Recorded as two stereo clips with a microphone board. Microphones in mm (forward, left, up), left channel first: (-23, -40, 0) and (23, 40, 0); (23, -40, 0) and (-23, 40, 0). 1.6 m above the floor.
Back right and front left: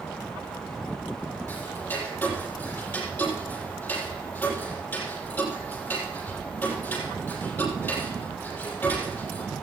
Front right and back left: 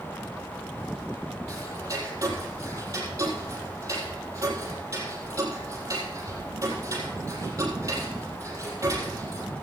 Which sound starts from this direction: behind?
Ticking, at 1.5 s.